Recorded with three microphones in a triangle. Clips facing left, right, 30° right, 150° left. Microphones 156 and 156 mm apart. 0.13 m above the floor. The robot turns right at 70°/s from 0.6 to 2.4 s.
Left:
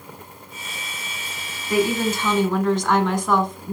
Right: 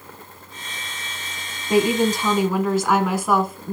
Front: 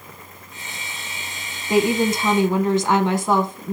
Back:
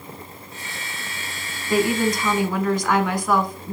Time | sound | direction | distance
1.7 | a woman speaking | 65° right | 1.3 m